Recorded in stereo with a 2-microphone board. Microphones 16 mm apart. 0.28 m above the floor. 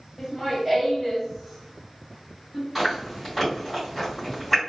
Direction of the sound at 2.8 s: 5° left (ahead or behind).